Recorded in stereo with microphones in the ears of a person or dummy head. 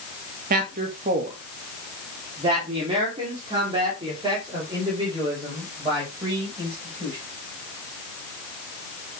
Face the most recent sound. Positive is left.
turn(degrees=-25)  # may be behind; listen again after turning